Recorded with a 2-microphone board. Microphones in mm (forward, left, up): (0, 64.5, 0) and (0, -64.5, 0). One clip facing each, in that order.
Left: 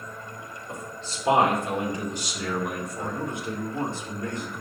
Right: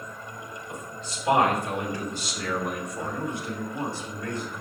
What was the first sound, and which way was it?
A man speaking, 35° left (ahead or behind).